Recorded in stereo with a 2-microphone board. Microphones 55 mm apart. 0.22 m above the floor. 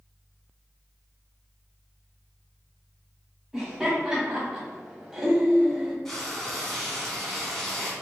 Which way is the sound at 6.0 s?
10° left (ahead or behind).